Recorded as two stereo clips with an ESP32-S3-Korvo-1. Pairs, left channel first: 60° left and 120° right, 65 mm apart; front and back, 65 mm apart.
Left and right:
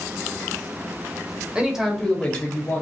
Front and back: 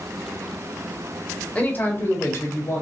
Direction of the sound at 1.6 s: 55° right.